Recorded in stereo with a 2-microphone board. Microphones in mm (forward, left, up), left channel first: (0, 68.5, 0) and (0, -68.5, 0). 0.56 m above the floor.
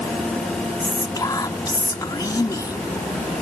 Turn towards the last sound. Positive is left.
turn(degrees=30)  # may be behind; listen again after turning